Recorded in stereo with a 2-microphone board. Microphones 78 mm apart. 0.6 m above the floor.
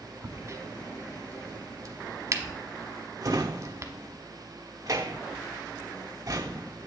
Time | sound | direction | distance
0.2 | a crack | 40° right (ahead or behind) | 0.9 m
3.2 | a drawer | 50° right (ahead or behind) | 0.8 m